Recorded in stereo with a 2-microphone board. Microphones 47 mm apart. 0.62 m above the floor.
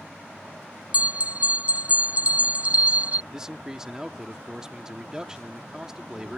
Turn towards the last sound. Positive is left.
turn(degrees=-15)  # may be behind; listen again after turning